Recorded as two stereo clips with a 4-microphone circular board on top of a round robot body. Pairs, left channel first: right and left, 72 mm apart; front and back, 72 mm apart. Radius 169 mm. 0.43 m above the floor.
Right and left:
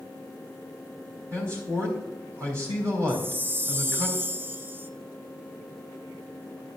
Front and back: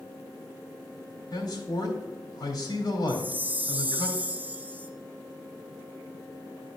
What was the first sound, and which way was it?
A man speaking, 40° left.